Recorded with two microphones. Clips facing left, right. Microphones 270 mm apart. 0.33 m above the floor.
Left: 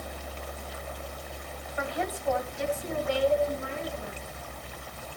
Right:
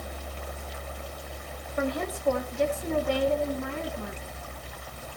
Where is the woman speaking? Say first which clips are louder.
Right 4 dB; 45° right (ahead or behind), 1.9 m; by 4.4 s 60° right (ahead or behind), 4.5 m.